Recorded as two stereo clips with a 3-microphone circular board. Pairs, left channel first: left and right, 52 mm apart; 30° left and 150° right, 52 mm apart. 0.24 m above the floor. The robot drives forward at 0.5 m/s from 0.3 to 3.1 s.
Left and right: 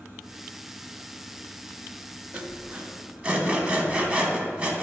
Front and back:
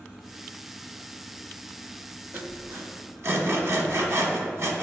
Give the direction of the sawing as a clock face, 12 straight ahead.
4 o'clock.